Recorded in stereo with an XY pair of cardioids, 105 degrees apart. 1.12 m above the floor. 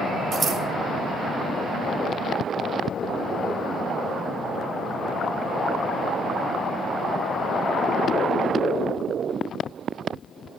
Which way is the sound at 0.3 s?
45° right.